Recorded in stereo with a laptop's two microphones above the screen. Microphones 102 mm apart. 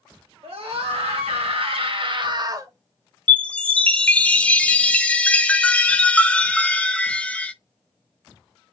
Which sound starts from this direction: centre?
A chime, at 3.3 s.